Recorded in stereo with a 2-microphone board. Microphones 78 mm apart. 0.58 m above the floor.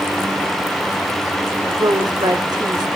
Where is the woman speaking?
60° right (ahead or behind), 1.7 m.